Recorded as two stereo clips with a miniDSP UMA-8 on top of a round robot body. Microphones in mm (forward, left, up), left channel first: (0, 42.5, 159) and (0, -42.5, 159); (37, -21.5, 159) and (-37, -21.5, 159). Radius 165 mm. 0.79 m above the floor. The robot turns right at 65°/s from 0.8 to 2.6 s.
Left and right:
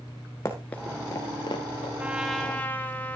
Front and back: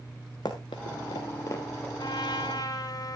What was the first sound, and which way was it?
Running footsteps, 40° left.